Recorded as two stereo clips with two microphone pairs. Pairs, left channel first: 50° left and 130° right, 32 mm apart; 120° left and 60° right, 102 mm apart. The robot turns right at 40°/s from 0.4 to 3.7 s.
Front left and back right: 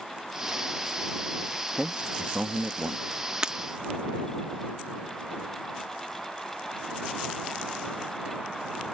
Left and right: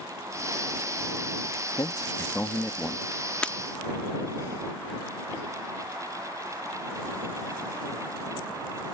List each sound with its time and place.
1.8 s a man speaking: 165° left; by 3.0 s 145° right
3.4 s breaking glass: 175° right; by 3.6 s 165° right